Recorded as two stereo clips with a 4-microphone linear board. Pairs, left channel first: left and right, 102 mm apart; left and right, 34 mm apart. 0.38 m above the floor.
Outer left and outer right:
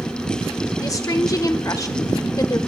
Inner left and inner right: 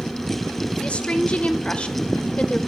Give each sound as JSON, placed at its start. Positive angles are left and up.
{"t": 0.8, "sound": "a woman speaking", "side_deg": 35, "distance_m": 0.9}